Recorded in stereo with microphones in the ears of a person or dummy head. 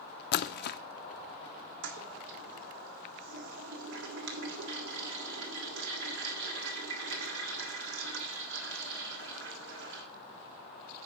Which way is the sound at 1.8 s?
70° right (ahead or behind).